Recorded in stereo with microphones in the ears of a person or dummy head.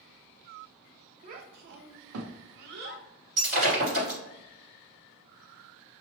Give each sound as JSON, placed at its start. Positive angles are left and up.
{"t": 1.2, "sound": "a child speaking", "side_deg": -40, "distance_m": 0.6}
{"t": 3.4, "sound": "breaking glass", "side_deg": -45, "distance_m": 1.9}